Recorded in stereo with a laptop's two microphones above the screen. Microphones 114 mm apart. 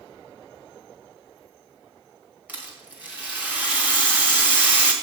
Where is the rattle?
15° right (ahead or behind), 1.3 m.